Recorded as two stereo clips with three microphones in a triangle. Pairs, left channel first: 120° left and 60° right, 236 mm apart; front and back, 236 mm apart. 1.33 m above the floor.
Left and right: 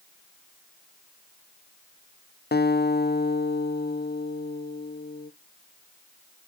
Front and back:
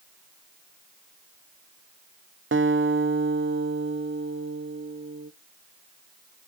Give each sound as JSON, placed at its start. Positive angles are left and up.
{"t": 2.5, "sound": "a guitar", "azimuth_deg": 160, "distance_m": 0.7}